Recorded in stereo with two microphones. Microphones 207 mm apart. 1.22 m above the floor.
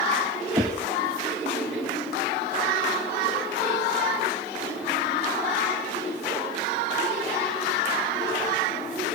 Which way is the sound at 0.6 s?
20° right (ahead or behind).